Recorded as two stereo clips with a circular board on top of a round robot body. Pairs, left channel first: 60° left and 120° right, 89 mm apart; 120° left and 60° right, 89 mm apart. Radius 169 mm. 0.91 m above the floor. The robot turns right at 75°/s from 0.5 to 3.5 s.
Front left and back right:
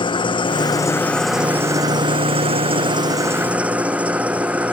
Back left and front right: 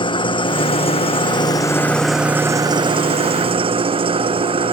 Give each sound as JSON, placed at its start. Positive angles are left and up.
{"t": 0.0, "sound": "an engine running", "azimuth_deg": 90}